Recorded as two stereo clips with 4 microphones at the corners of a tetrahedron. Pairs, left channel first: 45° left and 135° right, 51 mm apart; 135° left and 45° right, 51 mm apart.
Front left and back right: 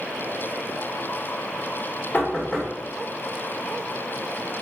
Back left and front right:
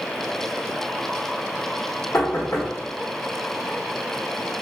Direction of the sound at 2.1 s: 110° left.